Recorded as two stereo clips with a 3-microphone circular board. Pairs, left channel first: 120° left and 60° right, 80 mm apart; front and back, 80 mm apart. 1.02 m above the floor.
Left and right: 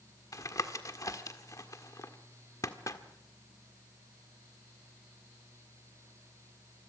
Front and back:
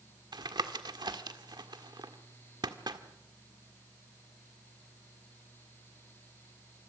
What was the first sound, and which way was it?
Tapping, 160° left.